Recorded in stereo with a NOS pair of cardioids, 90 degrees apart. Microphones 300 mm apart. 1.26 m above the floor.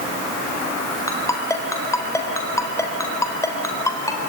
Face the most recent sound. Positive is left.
turn(degrees=10)